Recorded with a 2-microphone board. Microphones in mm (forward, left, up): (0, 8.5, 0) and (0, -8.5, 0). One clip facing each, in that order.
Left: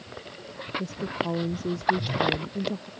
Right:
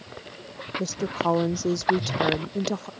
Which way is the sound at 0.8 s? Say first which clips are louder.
Right 6 dB; 60° right (ahead or behind).